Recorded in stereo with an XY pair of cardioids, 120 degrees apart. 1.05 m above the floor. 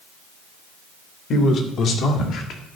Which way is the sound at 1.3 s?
50° left.